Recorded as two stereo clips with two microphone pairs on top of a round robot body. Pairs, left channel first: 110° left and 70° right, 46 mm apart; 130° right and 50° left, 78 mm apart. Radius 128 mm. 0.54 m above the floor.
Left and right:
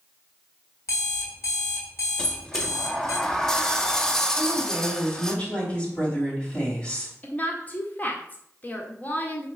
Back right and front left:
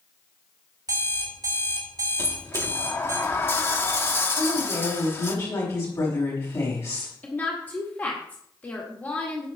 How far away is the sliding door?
About 1.2 m.